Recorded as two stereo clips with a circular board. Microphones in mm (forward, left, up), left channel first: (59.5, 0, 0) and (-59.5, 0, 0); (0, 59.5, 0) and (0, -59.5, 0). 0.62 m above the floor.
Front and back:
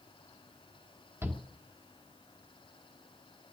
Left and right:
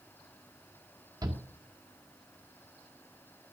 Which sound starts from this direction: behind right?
A shout, at 1.2 s.